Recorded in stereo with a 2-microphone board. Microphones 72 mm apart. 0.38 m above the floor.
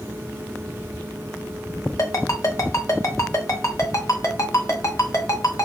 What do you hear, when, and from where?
2.0 s a ringtone: 45° left (ahead or behind), 0.8 m